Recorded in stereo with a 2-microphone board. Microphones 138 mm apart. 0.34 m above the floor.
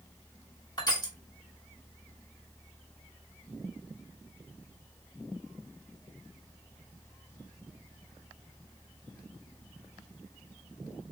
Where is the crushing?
30° left (ahead or behind), 1.5 m.